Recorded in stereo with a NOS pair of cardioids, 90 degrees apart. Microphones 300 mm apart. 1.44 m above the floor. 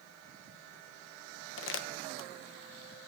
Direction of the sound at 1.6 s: 45° left.